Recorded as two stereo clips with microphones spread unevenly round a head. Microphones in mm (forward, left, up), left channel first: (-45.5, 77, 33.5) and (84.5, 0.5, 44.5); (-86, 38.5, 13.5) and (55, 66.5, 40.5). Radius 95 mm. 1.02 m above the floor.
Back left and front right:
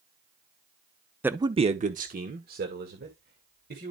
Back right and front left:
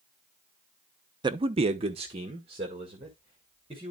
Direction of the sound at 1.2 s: 45° left.